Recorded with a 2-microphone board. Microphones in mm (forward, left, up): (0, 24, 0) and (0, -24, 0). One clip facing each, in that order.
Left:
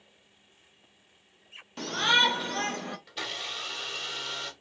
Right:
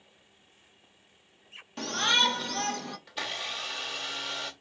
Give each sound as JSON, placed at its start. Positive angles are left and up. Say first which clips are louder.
{"t": 1.8, "sound": "a shout", "louder": "left 2 dB", "side_deg": 0, "distance_m": 0.9}
{"t": 3.1, "sound": "a blender", "louder": "right 1 dB", "side_deg": 0, "distance_m": 2.0}